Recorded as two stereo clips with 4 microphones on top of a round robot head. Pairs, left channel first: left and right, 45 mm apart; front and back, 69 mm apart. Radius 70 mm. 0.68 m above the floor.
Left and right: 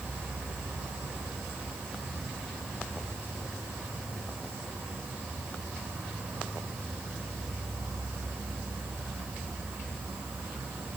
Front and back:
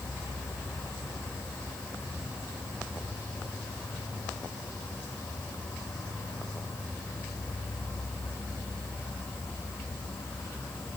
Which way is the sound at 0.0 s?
65° right.